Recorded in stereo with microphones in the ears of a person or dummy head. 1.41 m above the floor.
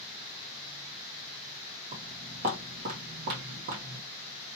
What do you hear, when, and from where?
1.9 s footsteps: 40° right (ahead or behind), 2.5 m; by 4.0 s 55° right (ahead or behind), 2.5 m